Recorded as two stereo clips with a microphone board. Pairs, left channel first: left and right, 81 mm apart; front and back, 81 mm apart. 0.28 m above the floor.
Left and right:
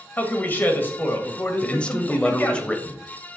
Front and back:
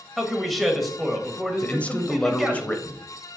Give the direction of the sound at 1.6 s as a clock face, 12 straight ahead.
11 o'clock.